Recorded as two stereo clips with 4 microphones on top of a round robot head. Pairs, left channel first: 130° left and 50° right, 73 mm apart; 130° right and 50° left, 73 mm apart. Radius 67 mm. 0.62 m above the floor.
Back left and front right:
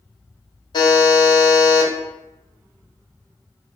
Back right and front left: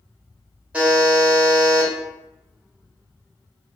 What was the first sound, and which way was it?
A buzzer, 125° left.